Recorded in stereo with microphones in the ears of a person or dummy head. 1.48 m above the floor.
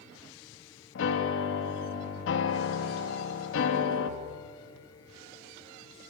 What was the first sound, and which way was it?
A piano, 70° left (ahead or behind).